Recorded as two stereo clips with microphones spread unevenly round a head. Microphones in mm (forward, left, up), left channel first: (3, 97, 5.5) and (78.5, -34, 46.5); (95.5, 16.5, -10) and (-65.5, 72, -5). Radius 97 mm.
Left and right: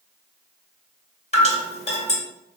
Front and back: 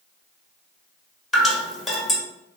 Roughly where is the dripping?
Left.